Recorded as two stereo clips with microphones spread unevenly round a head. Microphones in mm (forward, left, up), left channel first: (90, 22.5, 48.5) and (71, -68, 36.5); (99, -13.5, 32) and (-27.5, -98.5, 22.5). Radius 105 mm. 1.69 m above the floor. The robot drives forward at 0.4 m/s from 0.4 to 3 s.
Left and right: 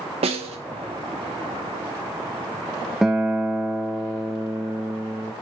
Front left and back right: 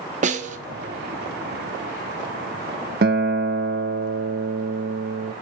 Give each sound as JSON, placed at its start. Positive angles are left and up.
{"t": 0.2, "sound": "a snare drum", "azimuth_deg": -115, "distance_m": 1.0}
{"t": 3.0, "sound": "a guitar", "azimuth_deg": 170, "distance_m": 0.6}